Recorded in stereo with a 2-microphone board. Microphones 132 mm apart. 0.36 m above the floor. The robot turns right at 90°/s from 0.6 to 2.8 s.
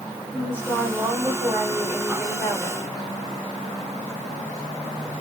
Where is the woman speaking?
15° right (ahead or behind), 1.3 m; by 2.8 s 20° left (ahead or behind), 1.3 m.